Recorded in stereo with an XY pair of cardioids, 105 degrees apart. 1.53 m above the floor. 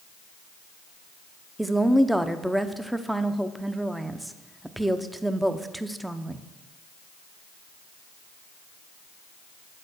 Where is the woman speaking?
5° right, 0.7 m.